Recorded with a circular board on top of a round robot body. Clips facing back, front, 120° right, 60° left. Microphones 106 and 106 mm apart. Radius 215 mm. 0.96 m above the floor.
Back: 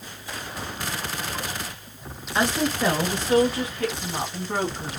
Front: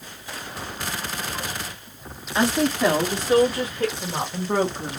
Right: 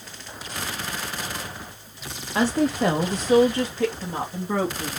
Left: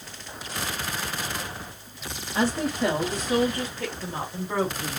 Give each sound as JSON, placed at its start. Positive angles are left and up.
{"t": 2.4, "sound": "a woman speaking", "azimuth_deg": -90, "distance_m": 1.2}